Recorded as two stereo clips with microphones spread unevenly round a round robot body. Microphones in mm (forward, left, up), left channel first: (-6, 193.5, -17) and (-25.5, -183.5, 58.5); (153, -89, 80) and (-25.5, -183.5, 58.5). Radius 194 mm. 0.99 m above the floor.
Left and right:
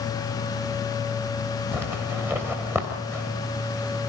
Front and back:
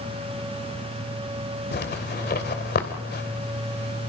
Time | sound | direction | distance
1.7 | a zipper | 10° right | 3 m